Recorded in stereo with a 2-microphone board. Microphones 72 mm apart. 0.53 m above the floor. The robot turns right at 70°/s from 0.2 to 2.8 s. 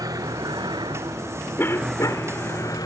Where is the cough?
45° left; by 2.4 s 100° left.